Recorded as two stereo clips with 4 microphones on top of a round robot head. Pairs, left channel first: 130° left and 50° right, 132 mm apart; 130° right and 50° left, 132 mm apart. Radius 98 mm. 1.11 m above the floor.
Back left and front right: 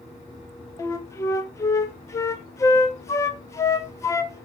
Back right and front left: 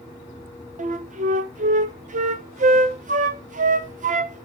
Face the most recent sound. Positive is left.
turn(degrees=65)